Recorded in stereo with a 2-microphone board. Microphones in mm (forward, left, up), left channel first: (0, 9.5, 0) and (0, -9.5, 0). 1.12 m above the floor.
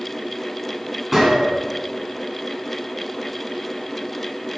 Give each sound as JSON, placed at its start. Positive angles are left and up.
{"t": 1.1, "sound": "a gunshot", "side_deg": 0, "distance_m": 1.5}